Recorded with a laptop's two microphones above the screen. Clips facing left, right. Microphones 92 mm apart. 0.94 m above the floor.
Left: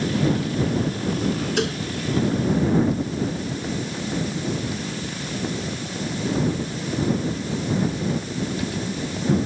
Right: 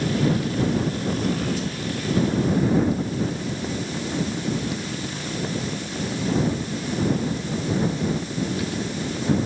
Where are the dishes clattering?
70° left (ahead or behind).